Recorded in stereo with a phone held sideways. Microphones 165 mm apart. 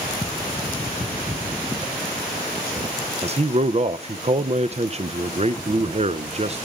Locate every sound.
3.2 s a man speaking: 45° right (ahead or behind), 0.7 m